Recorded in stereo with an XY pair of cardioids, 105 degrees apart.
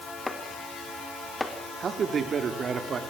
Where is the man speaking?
45° right, 5 m.